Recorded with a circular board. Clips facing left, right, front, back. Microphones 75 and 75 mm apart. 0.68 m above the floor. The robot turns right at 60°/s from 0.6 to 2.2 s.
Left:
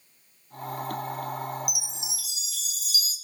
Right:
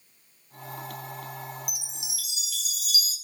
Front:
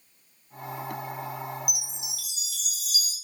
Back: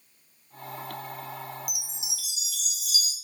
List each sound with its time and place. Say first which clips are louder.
1.7 s a chime: left 4 dB, front 2 dB; 10° left, 0.7 m; by 3.1 s 40° left, 0.7 m